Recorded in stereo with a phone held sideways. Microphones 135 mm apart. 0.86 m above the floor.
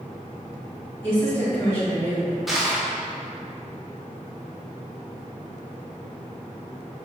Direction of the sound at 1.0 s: 20° left (ahead or behind).